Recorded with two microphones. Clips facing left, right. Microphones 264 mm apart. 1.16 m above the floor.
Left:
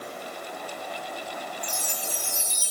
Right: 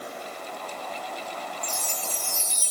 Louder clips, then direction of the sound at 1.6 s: Even; 70° left (ahead or behind).